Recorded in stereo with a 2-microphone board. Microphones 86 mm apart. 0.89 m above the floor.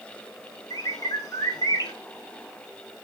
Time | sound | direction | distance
0.7 | a bird | 45° left (ahead or behind) | 1.3 m